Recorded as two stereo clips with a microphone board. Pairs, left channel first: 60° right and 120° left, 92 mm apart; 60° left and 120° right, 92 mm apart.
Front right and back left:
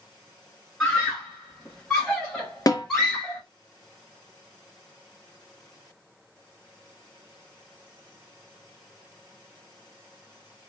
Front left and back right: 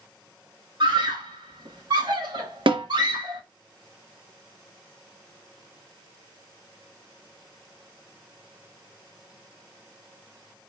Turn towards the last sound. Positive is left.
turn(degrees=-105)